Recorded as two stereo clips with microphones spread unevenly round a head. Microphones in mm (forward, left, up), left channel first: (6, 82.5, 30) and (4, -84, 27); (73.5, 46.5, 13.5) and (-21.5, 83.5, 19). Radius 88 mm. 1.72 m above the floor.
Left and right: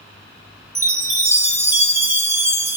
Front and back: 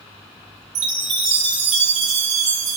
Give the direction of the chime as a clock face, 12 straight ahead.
6 o'clock.